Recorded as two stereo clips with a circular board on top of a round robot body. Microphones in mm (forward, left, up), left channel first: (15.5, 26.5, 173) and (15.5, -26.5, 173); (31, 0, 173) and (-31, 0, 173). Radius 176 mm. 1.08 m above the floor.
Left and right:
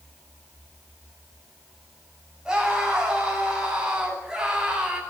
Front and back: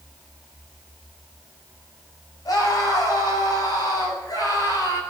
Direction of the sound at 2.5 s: 15° right.